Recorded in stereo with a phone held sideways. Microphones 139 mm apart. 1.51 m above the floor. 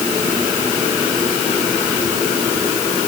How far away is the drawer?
No drawer in this recording.